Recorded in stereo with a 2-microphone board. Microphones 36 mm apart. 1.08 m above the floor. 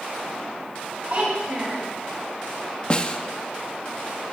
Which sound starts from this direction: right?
A child speaking, at 1.1 s.